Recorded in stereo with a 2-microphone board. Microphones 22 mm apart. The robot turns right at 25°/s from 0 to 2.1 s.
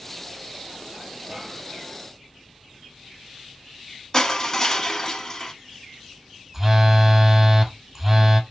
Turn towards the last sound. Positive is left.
turn(degrees=-15)  # may be behind; listen again after turning